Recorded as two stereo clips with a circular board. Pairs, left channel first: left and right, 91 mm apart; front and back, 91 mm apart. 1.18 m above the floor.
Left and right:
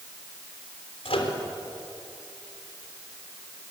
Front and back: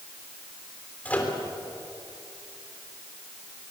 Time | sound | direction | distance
1.1 | a microwave | 75° left | 3 m